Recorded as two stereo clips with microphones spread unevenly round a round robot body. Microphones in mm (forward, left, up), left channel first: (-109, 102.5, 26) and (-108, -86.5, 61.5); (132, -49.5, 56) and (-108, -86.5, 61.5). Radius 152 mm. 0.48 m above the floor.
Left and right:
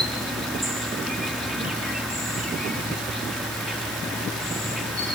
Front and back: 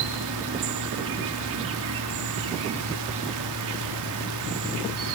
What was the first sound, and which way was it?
An insect, straight behind.